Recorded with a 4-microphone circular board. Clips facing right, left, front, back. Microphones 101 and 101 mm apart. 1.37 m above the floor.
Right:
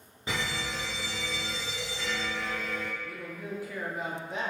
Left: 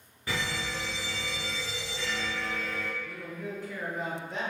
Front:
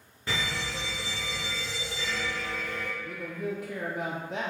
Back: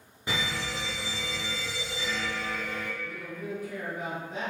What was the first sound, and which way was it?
A fire alarm, 125° right.